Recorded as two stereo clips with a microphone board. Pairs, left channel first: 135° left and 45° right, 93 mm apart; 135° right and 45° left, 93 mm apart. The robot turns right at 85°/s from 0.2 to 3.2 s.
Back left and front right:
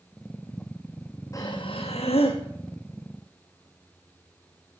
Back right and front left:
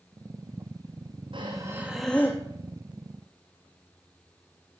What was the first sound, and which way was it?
Breathing, 75° left.